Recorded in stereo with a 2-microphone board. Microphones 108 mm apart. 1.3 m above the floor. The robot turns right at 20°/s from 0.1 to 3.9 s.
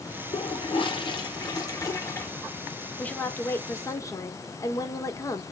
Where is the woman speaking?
10° left (ahead or behind), 0.9 m; by 5.4 s 30° left (ahead or behind), 0.9 m.